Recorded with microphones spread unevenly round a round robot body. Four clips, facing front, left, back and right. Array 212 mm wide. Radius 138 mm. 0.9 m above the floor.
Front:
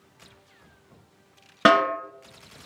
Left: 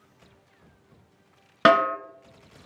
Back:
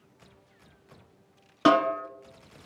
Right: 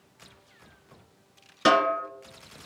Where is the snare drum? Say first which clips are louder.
Left 3 dB, front 2 dB; 35° left, 2 m.